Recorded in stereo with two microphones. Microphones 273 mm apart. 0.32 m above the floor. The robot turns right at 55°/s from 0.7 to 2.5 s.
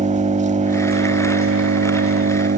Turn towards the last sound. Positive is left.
turn(degrees=-50)